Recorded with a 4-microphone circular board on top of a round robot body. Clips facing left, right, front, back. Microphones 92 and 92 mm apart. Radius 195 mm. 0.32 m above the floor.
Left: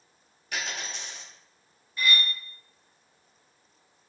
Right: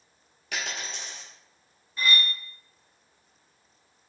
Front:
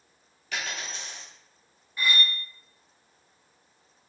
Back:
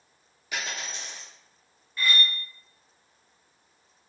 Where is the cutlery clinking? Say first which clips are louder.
Right 1 dB, even; 65° right, 0.6 m.